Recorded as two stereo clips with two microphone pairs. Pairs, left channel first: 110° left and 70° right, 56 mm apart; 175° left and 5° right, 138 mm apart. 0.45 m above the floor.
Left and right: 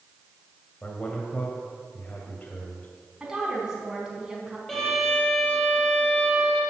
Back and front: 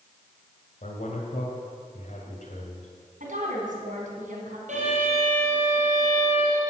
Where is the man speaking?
175° left, 2 m.